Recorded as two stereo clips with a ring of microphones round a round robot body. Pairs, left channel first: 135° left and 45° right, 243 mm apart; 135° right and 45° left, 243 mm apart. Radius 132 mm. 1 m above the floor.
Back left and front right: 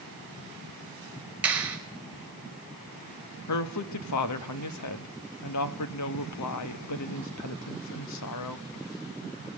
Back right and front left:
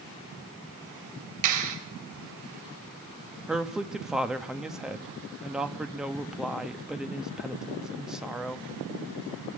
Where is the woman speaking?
135° left, 1.3 m.